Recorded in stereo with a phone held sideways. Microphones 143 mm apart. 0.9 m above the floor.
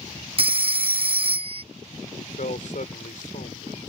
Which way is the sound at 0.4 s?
40° right (ahead or behind).